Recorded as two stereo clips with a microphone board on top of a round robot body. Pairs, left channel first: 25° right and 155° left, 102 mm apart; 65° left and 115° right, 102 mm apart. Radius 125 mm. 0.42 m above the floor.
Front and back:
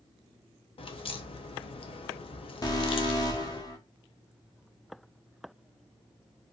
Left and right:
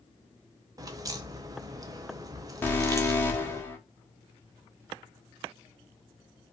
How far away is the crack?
About 0.7 m.